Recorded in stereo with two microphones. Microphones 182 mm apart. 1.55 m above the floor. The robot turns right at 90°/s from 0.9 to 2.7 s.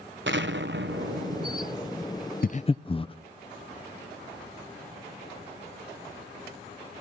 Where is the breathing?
50° left (ahead or behind), 0.6 m; by 3.1 s 30° left (ahead or behind), 0.6 m.